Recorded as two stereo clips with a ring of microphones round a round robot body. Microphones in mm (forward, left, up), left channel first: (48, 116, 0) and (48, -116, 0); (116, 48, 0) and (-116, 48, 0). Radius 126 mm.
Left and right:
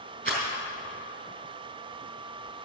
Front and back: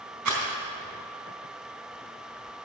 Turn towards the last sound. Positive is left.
turn(degrees=-155)